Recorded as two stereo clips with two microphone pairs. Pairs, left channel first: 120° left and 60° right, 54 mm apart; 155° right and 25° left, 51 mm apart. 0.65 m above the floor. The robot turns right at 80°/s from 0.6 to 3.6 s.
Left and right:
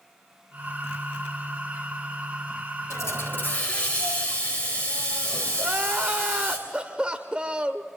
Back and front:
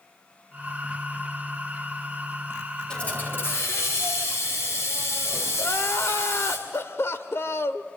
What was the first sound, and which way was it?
A hiss, 130° left.